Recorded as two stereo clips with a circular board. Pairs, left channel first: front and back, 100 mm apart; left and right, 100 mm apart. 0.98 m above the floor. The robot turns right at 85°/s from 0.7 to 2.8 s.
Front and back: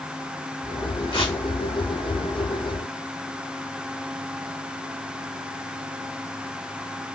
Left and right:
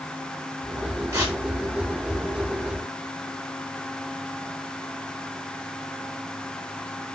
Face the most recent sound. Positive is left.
turn(degrees=115)